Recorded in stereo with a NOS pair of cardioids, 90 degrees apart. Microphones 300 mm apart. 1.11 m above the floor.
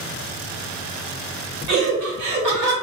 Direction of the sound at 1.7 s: 65° right.